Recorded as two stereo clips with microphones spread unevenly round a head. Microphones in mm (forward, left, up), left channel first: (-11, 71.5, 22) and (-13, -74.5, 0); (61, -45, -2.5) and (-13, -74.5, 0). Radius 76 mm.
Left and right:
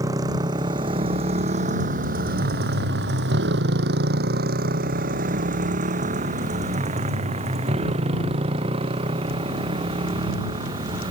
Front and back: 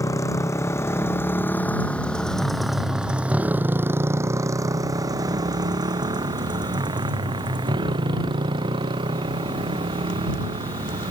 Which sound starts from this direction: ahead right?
A motorcycle, at 0.0 s.